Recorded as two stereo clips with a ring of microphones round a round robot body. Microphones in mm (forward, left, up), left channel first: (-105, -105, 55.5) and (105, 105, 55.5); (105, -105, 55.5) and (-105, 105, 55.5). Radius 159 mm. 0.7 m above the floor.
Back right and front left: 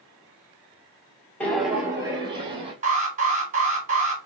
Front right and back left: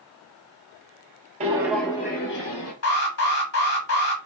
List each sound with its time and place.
1.4 s footsteps: 150° left, 0.7 m; by 2.7 s 25° right, 1.0 m
2.8 s an alarm: 15° right, 1.3 m